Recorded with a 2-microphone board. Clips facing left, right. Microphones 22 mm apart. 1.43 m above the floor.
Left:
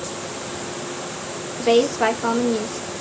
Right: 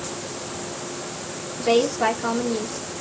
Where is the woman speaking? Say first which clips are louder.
Left 2 dB; 20° left (ahead or behind), 1.6 m.